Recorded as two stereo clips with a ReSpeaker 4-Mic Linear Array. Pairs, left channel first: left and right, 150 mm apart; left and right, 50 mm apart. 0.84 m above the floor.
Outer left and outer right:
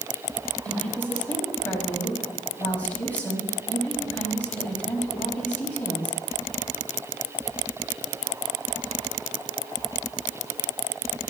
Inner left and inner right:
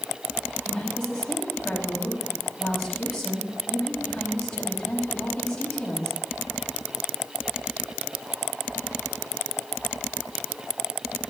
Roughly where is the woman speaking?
Centre.